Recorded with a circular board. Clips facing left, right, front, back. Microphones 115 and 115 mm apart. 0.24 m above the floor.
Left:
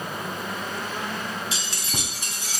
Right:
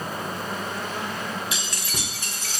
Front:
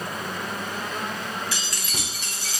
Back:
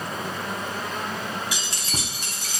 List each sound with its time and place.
1.5 s keys jangling: 115° left, 0.8 m; by 2.6 s 165° left, 1.3 m